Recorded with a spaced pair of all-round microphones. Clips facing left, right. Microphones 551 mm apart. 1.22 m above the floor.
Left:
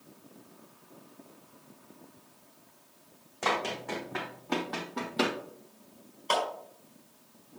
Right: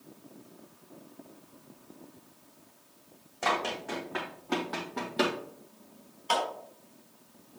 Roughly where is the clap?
Centre.